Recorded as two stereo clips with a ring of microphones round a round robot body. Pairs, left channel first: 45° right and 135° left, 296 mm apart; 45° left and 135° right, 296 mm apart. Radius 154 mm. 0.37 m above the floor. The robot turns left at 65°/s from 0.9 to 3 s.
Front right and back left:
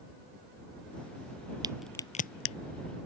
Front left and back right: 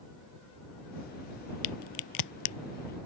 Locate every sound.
1.6 s a crack: 60° left; by 2.5 s straight ahead